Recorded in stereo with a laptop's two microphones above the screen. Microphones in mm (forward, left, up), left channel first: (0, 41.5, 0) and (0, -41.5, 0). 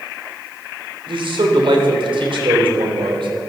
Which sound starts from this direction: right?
A man speaking, at 1.1 s.